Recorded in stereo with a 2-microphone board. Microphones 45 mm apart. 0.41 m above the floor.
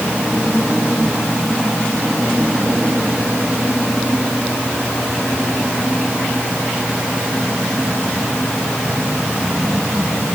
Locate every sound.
Only background noise.